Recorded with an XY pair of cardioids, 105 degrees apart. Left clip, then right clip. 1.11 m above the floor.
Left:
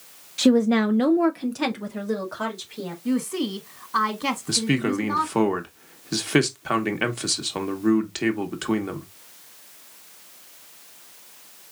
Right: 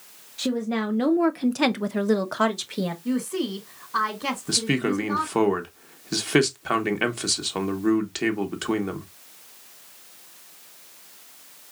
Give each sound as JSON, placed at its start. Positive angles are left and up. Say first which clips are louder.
{"t": 0.4, "sound": "a woman speaking", "louder": "left 7 dB", "azimuth_deg": 55, "distance_m": 0.7}
{"t": 3.0, "sound": "a woman speaking", "louder": "left 5 dB", "azimuth_deg": 10, "distance_m": 1.6}
{"t": 4.5, "sound": "a man speaking", "louder": "right 1 dB", "azimuth_deg": -5, "distance_m": 1.2}